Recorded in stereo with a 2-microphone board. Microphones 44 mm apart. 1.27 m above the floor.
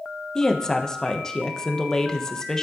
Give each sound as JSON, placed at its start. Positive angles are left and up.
{"t": 0.3, "sound": "a woman speaking", "side_deg": 15, "distance_m": 0.8}